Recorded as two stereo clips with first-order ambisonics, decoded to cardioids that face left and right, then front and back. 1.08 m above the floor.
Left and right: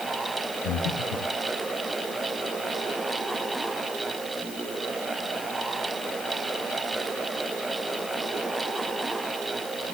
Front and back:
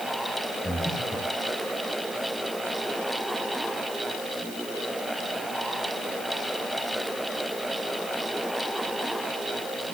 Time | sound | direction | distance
0.6 | breathing | 85° left | 2 m